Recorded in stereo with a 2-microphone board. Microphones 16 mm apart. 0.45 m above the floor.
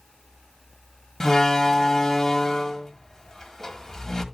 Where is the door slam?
20° left (ahead or behind), 1.7 m.